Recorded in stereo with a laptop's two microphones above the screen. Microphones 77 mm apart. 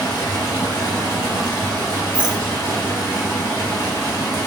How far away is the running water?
About 1.2 m.